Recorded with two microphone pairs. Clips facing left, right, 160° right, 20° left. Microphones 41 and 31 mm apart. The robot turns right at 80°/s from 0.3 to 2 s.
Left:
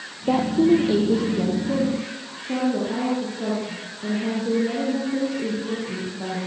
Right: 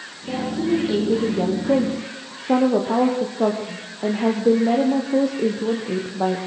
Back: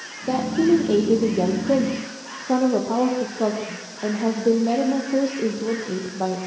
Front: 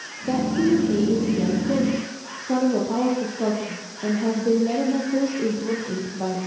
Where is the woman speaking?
125° left, 3.5 m; by 6.4 s 100° right, 3.5 m.